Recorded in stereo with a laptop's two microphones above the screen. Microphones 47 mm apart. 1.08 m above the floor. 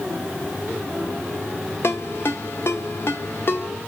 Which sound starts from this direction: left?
A ringtone, at 1.8 s.